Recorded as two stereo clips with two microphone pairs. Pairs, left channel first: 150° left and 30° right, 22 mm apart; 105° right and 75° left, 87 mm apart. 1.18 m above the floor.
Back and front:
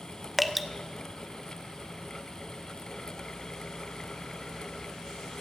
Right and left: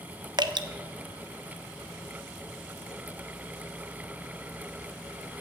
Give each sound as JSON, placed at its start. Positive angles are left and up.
{"t": 0.4, "sound": "dripping", "azimuth_deg": 55, "distance_m": 0.6}